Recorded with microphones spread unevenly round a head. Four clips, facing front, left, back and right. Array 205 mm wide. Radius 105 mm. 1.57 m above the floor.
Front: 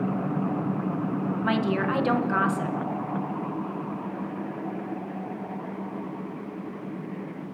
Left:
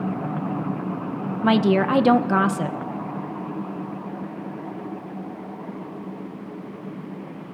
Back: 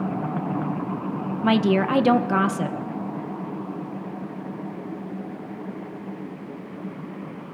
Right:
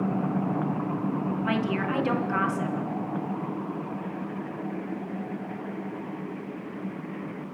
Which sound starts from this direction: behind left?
A woman speaking, at 1.4 s.